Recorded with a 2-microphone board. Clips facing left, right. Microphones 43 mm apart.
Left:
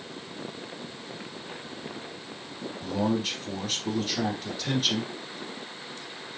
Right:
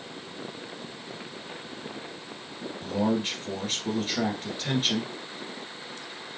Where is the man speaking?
30° right (ahead or behind), 1.6 m.